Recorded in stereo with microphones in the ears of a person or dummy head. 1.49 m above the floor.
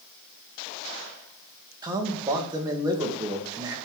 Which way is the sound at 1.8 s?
15° right (ahead or behind).